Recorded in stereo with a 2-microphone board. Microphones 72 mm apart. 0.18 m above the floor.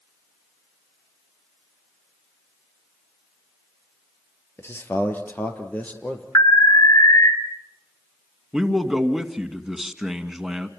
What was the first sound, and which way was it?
A man speaking, 35° left (ahead or behind).